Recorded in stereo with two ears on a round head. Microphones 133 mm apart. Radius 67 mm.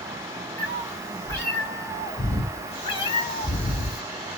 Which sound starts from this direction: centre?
A cat meowing, at 0.6 s.